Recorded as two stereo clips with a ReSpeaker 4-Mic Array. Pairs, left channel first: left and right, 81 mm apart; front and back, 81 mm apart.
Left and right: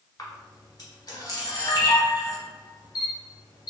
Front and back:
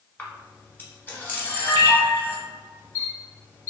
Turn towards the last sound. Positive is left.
turn(degrees=65)